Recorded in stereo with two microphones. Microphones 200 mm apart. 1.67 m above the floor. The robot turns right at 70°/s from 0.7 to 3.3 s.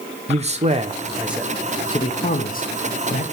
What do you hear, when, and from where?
0.3 s a man speaking: 35° right (ahead or behind), 0.6 m; by 3.2 s 35° left (ahead or behind), 0.6 m